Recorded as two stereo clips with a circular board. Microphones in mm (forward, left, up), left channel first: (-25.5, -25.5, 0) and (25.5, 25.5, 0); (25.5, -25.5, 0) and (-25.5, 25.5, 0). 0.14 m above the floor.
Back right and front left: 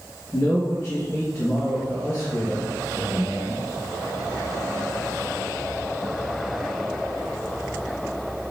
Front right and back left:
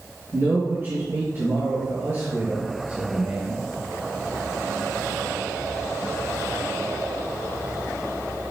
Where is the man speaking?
Straight behind, 2 m.